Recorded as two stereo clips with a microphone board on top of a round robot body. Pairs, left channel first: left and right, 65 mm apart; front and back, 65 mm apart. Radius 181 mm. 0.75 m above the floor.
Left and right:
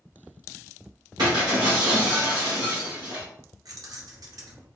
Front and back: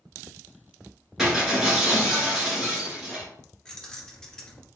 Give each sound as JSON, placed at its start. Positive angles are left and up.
{"t": 1.2, "sound": "breaking glass", "azimuth_deg": -100, "distance_m": 1.7}
{"t": 3.6, "sound": "keys jangling", "azimuth_deg": -80, "distance_m": 1.0}